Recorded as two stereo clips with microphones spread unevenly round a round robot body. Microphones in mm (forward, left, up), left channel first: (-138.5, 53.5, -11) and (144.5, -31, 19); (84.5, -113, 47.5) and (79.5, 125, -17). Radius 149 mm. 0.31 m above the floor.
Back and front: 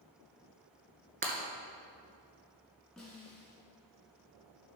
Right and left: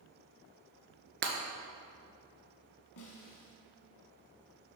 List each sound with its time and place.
1.2 s breaking glass: 45° left, 1.7 m
3.0 s a snare drum: 110° right, 1.6 m